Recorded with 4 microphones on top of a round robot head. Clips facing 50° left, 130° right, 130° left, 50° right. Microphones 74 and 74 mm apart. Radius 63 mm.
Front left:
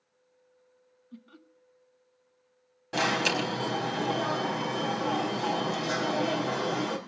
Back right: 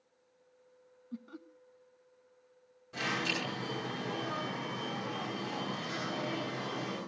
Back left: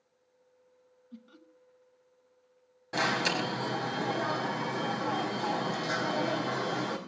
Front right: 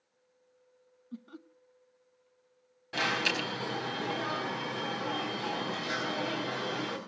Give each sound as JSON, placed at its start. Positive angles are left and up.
{"t": 1.1, "sound": "laughter", "azimuth_deg": -70, "distance_m": 1.1}
{"t": 2.9, "sound": "an alarm", "azimuth_deg": 65, "distance_m": 5.0}